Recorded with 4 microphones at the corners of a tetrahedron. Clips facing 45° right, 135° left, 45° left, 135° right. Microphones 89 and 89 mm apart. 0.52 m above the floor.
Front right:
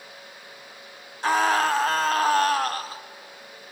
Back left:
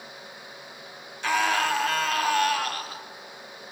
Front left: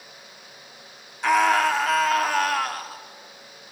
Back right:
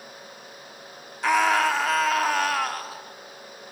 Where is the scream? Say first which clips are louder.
Front right 3 dB, front left 2 dB; 45° right, 1.3 m.